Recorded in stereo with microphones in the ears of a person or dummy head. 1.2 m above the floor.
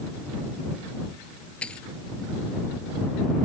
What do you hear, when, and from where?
1.6 s a dropped coin: 5° left (ahead or behind)